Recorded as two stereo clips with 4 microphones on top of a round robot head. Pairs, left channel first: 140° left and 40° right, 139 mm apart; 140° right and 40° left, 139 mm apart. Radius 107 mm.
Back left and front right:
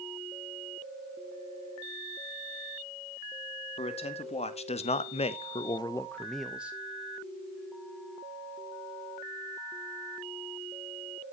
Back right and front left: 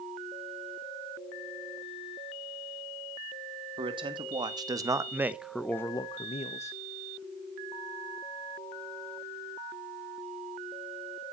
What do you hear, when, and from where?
3.8 s a man speaking: 95° left, 2.5 m; by 6.8 s 120° right, 1.3 m